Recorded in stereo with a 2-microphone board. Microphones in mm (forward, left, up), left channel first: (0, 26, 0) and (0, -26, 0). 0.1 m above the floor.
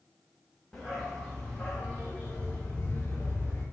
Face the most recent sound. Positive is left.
turn(degrees=35)  # may be behind; listen again after turning